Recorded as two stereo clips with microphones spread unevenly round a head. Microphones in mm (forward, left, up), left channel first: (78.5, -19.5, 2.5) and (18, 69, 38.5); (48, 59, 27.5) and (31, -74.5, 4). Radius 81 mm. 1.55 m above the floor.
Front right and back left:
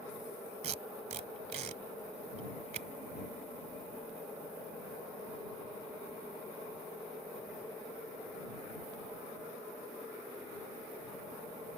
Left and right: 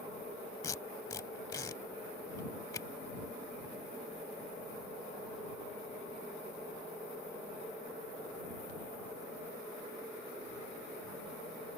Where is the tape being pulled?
150° left.